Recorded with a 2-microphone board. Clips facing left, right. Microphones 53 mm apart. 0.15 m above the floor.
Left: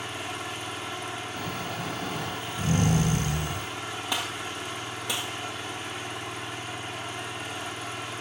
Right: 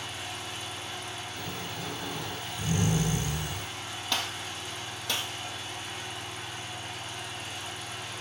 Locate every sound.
0.0 s an engine running: 60° left (ahead or behind), 3 m
1.4 s snoring: 65° left (ahead or behind), 2.0 m
4.1 s a gunshot: 15° left (ahead or behind), 1.6 m